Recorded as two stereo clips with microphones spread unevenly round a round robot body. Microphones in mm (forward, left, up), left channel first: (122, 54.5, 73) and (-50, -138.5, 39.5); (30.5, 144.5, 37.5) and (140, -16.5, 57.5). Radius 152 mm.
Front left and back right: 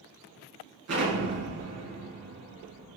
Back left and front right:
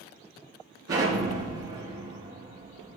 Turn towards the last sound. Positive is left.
turn(degrees=-95)